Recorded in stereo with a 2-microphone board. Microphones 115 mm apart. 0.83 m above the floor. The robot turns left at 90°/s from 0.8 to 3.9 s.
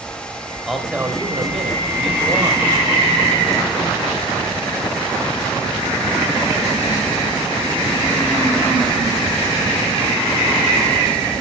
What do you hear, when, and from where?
0.7 s a man speaking: straight ahead, 3.5 m; by 2.7 s 170° right, 3.5 m